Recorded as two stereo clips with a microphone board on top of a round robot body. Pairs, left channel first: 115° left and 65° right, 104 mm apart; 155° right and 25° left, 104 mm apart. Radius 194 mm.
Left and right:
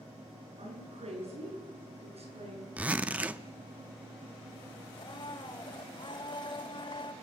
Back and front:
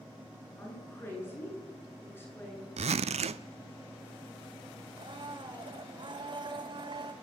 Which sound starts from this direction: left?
A blender, at 5.0 s.